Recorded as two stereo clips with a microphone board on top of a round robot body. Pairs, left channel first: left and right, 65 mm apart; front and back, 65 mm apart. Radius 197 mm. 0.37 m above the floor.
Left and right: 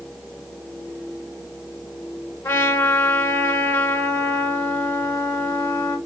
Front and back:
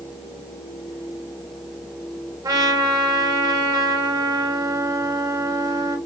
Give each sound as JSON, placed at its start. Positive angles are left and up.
{"t": 2.4, "sound": "a trumpet", "azimuth_deg": 145, "distance_m": 0.5}